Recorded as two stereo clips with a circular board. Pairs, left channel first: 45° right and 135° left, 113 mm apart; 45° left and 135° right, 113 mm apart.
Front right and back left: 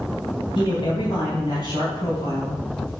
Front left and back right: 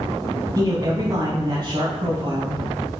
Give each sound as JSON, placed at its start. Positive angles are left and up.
{"t": 0.6, "sound": "a man speaking", "azimuth_deg": -80, "distance_m": 2.5}